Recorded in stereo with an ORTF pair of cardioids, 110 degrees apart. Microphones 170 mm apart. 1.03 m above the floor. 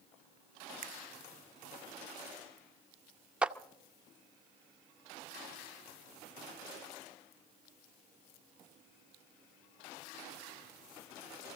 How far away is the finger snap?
About 0.7 m.